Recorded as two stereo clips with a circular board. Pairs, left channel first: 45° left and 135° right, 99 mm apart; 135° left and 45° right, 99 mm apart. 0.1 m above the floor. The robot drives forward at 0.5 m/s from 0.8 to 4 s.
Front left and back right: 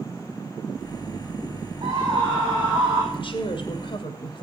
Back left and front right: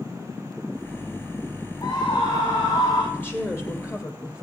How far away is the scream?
About 5.5 m.